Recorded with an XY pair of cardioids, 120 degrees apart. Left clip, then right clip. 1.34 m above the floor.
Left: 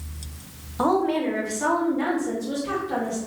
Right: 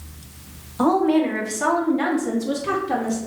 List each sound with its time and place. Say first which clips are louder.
0.8 s a woman speaking: right 3 dB; 5° left, 0.9 m; by 3.2 s 75° right, 1.1 m